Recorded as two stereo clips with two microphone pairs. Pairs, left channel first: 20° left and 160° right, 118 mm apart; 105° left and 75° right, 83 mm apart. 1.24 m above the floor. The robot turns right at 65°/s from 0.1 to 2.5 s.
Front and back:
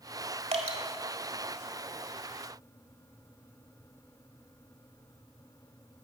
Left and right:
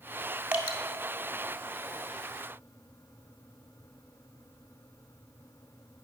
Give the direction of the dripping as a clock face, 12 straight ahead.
5 o'clock.